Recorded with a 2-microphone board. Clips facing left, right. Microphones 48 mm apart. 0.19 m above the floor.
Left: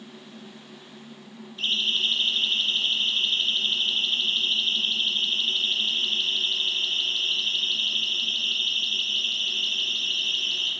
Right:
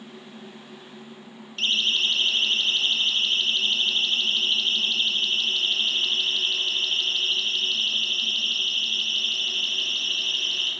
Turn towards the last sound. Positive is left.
turn(degrees=-60)  # may be behind; listen again after turning